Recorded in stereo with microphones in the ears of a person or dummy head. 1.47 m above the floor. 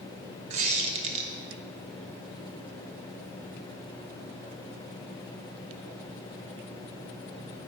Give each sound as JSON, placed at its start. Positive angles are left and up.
{"t": 0.5, "sound": "a squeak", "side_deg": -35, "distance_m": 0.6}